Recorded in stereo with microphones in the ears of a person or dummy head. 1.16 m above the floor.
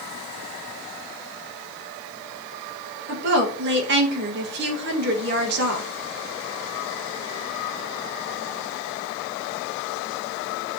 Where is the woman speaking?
60° right (ahead or behind), 1.8 m.